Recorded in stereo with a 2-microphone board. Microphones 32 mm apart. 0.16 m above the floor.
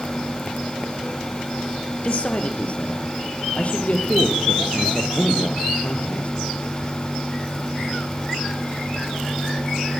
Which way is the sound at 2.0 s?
45° left (ahead or behind).